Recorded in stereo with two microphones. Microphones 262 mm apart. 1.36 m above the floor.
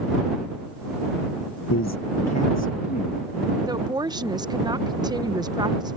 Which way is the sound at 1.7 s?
80° left.